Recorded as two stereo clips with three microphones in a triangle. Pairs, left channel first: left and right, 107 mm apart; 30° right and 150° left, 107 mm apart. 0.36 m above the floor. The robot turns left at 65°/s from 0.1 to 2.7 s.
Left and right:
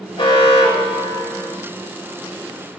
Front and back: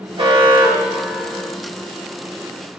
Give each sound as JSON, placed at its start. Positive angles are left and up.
{"t": 0.2, "sound": "an alarm", "azimuth_deg": 125, "distance_m": 3.0}